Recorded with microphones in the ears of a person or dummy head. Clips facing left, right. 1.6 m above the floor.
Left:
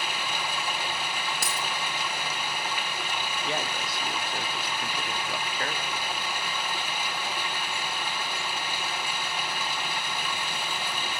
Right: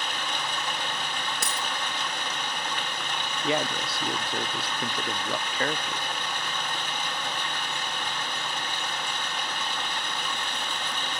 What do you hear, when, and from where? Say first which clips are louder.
0.0 s running water: even; 10° left (ahead or behind), 1.4 m
1.4 s a dropped coin: even; centre (ahead or behind), 1.0 m
3.4 s a man speaking: right 7 dB; 65° right (ahead or behind), 0.7 m